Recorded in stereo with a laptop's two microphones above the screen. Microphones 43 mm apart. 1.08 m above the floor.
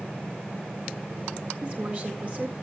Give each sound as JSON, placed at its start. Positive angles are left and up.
{"t": 1.6, "sound": "a woman speaking", "side_deg": -35, "distance_m": 1.7}